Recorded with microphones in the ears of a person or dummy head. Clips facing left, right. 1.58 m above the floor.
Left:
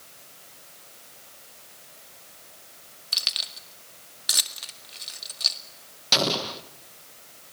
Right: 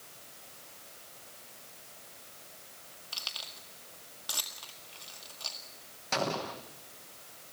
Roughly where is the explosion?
Left.